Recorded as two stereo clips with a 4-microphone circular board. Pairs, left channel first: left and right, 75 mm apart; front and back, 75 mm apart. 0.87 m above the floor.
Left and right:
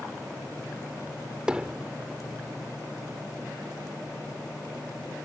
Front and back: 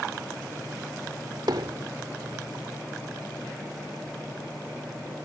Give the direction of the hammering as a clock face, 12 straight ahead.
6 o'clock.